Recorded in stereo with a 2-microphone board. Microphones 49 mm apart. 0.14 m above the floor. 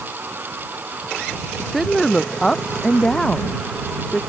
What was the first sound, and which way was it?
A woman speaking, centre (ahead or behind).